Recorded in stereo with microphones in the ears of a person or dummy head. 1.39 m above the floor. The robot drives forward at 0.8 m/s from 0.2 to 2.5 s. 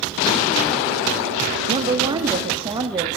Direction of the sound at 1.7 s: 25° right (ahead or behind).